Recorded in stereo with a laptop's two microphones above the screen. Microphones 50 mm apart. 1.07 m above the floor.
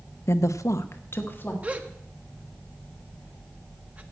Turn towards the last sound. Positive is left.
turn(degrees=-30)  # may be behind; listen again after turning